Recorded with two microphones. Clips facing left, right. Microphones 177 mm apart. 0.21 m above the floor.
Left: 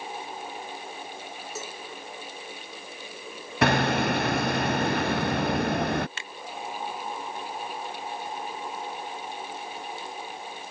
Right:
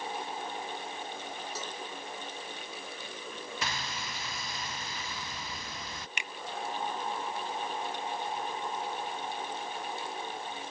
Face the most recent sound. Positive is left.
turn(degrees=-20)  # may be behind; listen again after turning